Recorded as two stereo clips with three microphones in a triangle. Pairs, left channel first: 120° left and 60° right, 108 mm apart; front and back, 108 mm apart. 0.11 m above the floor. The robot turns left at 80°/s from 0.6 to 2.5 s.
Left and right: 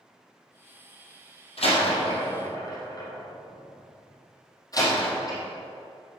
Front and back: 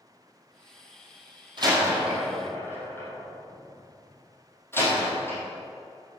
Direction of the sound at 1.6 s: 140° left.